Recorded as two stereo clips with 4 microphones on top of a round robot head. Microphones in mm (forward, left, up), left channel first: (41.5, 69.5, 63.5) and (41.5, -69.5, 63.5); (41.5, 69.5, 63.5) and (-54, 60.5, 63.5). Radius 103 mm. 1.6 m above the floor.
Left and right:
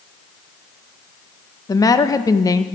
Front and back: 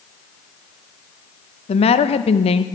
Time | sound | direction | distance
1.7 | a woman speaking | 25° left | 0.6 m